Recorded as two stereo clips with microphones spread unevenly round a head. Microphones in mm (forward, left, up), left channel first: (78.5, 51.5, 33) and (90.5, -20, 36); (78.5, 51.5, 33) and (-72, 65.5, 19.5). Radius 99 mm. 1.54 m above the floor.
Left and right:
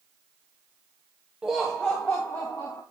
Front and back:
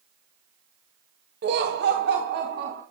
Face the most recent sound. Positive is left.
turn(degrees=165)